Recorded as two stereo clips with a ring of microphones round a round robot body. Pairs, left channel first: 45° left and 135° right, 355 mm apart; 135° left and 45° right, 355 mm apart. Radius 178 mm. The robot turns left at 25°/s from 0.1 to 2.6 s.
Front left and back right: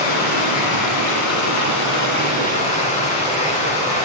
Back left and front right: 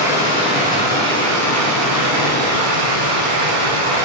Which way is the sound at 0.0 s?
35° left.